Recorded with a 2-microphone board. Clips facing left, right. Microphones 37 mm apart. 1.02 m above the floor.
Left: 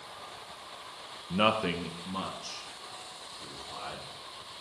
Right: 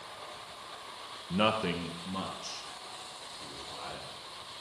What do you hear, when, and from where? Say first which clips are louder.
1.3 s a man speaking: left 2 dB; 15° left (ahead or behind), 0.6 m; by 4.0 s 5° left (ahead or behind), 3.5 m